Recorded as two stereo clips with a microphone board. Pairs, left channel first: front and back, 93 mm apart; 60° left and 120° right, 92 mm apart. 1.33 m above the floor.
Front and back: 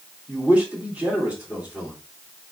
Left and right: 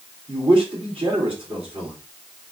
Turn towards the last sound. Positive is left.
turn(degrees=-105)